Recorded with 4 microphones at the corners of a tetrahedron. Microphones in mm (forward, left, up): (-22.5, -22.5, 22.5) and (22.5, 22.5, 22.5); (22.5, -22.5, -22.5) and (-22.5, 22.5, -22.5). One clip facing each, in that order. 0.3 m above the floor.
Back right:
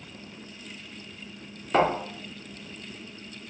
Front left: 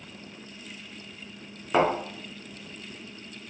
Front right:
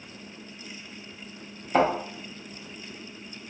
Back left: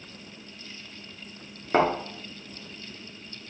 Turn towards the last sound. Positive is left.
turn(degrees=125)